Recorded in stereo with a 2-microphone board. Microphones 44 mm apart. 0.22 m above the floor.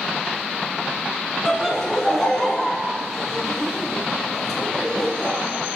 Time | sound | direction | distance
1.4 | laughter | 10° left (ahead or behind) | 1.6 m